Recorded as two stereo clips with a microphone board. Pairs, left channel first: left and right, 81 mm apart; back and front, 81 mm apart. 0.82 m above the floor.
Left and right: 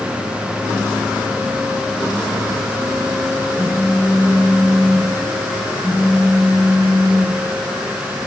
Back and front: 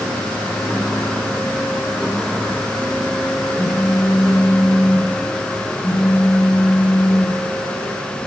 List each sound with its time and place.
3.6 s a phone buzzing: 120° right, 4 m